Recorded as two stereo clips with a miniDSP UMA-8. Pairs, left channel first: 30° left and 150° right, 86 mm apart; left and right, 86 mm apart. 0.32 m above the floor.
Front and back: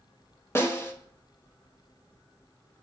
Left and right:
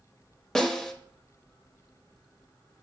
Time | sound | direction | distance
0.6 | a snare drum | 15° left | 0.8 m